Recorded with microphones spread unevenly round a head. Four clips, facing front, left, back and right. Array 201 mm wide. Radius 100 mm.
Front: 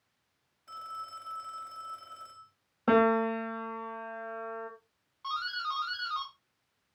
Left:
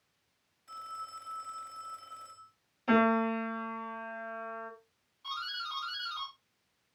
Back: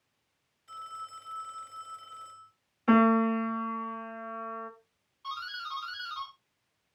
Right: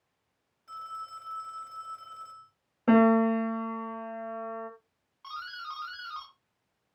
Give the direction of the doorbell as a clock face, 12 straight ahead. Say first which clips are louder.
Even, front 4 dB; 1 o'clock.